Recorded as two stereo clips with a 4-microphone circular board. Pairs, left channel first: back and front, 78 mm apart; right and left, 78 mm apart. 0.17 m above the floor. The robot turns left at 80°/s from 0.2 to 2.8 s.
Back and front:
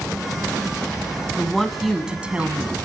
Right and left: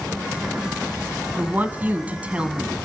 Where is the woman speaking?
125° left, 1.5 m; by 2.8 s 10° left, 1.5 m.